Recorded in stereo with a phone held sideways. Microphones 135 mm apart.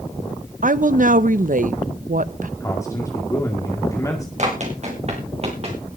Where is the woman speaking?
70° right (ahead or behind), 0.7 m.